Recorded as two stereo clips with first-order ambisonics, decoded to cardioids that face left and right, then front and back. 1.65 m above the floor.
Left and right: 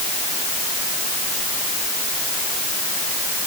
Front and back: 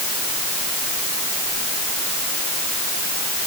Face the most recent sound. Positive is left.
No sound to turn to.